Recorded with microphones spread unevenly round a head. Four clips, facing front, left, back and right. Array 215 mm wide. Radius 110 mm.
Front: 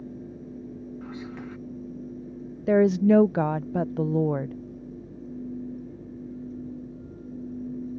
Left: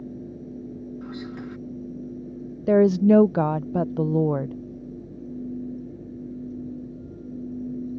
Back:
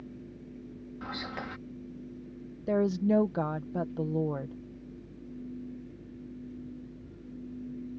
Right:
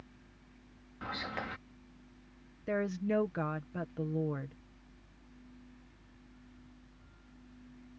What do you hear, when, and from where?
0.0 s a fan: 65° left
1.0 s whispering: 130° right
2.7 s a woman speaking: 80° left